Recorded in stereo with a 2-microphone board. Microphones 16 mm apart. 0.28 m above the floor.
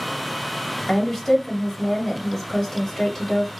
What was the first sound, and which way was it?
A woman speaking, 25° left (ahead or behind).